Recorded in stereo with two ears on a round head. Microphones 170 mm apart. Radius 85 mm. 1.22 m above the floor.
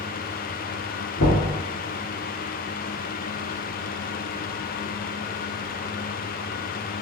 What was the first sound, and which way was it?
Knocking, 70° left (ahead or behind).